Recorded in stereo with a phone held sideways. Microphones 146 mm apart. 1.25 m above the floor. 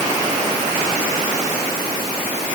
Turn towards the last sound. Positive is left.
No sound to turn to.